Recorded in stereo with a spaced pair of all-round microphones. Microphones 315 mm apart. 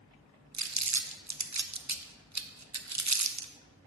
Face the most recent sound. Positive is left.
turn(degrees=-60)  # may be behind; listen again after turning